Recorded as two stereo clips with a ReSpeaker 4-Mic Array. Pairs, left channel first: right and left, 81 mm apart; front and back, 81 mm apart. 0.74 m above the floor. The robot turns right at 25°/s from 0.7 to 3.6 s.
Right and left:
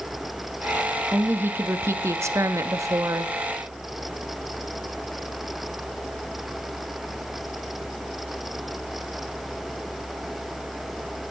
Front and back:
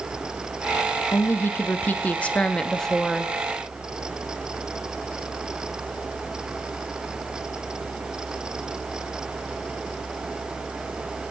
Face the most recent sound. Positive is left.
turn(degrees=100)